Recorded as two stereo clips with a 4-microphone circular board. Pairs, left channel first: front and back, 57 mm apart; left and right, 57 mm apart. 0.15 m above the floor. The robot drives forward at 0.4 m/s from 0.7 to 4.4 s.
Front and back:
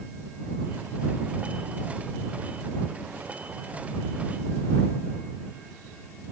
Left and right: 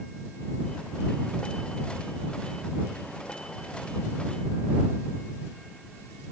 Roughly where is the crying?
No crying in this recording.